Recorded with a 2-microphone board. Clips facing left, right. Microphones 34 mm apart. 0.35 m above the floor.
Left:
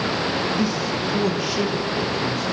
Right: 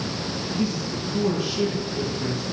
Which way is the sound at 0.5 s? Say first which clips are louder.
Left 4 dB; 80° left.